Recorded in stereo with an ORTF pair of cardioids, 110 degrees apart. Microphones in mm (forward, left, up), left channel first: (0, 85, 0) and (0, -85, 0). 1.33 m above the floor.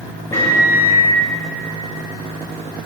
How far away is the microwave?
About 1.7 m.